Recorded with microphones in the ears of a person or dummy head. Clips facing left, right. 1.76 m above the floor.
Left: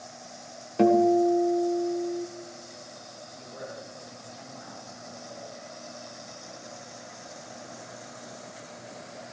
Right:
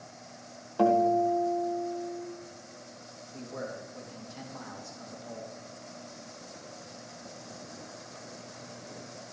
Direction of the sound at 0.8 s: 25° left (ahead or behind).